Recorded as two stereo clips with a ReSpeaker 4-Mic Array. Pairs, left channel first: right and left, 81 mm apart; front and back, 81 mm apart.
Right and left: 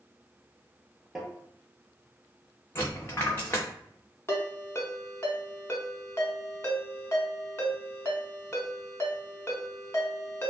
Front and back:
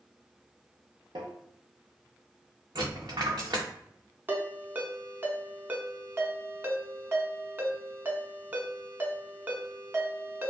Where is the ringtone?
130° right, 0.5 m.